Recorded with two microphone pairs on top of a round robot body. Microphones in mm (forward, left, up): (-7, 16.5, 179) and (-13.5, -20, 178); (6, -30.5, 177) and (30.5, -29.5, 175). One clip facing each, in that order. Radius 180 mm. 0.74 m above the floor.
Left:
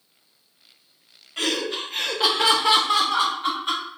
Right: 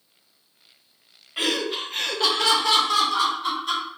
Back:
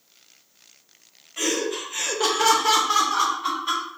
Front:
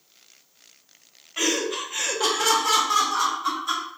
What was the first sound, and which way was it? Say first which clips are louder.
Laughter: right 1 dB, front 1 dB; 35° right.